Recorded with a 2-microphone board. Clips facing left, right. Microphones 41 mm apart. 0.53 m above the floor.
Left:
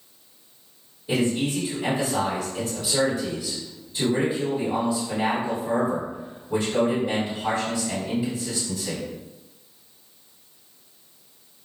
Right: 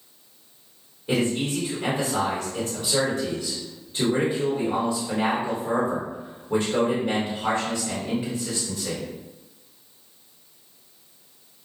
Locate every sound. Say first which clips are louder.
1.1 s a man speaking: even; 50° right (ahead or behind), 1.4 m